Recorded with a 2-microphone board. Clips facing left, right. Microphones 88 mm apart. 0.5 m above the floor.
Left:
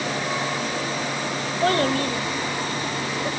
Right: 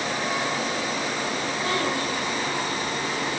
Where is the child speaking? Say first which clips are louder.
Left 8 dB; 70° left (ahead or behind), 1.4 m.